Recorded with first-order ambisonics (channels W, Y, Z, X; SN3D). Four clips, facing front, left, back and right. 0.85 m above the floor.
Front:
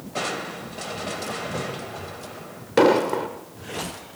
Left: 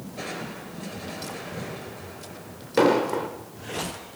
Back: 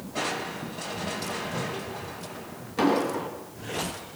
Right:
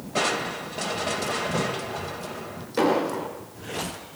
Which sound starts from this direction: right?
Crushing, at 0.1 s.